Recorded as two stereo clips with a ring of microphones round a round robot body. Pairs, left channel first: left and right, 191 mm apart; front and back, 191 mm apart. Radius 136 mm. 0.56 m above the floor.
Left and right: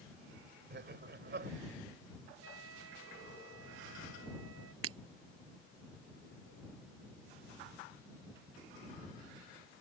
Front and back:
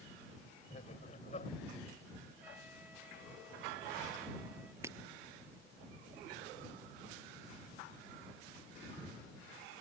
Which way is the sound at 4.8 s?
100° right.